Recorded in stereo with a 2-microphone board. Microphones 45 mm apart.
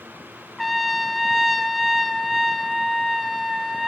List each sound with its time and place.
0.6 s a trumpet: centre (ahead or behind), 1.7 m